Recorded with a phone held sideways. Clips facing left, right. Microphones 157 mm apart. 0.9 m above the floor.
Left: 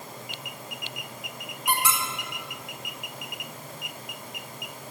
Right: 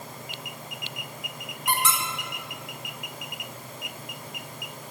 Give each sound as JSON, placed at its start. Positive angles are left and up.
{"t": 1.7, "sound": "a squeak", "side_deg": 10, "distance_m": 0.5}